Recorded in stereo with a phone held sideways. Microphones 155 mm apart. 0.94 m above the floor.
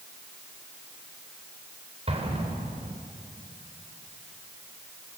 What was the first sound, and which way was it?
An explosion, 40° right (ahead or behind).